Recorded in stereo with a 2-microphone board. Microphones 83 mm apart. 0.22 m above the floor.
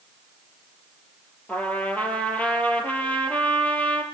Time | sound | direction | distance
1.5 | a trumpet | 20° left (ahead or behind) | 3 m